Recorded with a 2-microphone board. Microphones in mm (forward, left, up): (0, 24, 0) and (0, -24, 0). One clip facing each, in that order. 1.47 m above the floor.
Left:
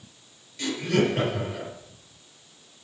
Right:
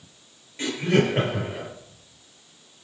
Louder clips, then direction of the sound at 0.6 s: Right 2 dB; 30° right (ahead or behind).